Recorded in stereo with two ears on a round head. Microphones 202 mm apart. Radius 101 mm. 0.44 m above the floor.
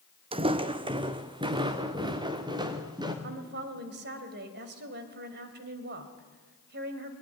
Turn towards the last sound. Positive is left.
turn(degrees=-45)  # may be behind; listen again after turning